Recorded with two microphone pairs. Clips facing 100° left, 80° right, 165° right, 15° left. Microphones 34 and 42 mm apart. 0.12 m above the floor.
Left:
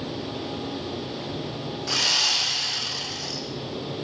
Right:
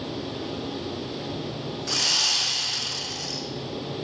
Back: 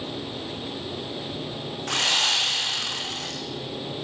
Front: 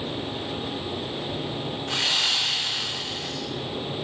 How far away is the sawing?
About 5.5 m.